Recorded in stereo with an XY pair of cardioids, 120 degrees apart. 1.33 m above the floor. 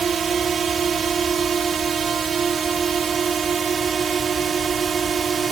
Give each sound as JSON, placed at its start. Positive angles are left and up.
{"t": 0.0, "sound": "a drone", "azimuth_deg": -35}